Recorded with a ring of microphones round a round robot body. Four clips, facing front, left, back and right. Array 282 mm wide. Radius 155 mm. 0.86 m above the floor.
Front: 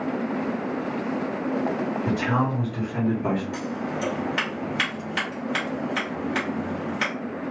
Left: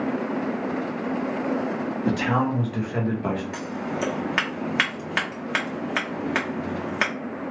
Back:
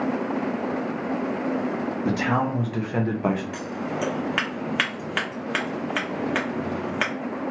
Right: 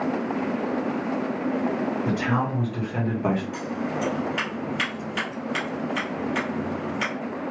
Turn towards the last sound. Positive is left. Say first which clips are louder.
# right 1 dB, even
turn(degrees=125)